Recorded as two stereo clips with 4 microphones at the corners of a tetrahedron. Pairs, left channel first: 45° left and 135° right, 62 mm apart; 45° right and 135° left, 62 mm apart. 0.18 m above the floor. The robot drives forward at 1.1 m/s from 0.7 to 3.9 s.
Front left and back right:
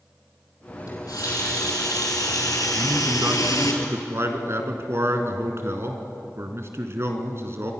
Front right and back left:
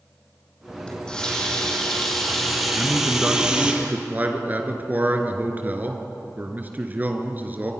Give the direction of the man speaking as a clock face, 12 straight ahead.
5 o'clock.